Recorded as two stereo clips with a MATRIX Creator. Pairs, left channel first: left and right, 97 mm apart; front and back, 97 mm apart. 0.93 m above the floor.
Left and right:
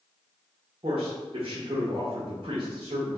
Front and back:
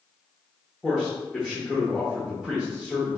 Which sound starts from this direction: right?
A man speaking, at 0.8 s.